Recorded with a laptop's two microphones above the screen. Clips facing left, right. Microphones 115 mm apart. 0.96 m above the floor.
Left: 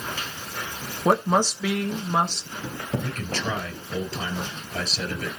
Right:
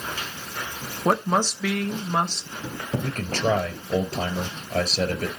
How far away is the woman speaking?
About 0.8 m.